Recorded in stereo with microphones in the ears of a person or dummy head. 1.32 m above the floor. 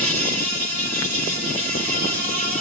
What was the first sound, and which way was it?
An insect, 45° right (ahead or behind).